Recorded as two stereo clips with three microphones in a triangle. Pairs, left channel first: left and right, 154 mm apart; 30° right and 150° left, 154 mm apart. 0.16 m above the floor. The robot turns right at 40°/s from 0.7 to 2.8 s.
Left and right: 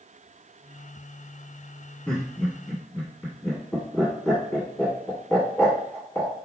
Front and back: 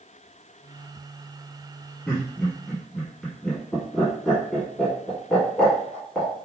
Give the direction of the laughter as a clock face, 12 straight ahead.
11 o'clock.